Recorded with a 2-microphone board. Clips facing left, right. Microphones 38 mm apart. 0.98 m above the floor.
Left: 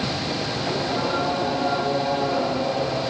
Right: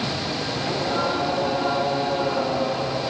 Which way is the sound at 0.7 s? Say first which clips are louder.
Right 1 dB; 35° right (ahead or behind).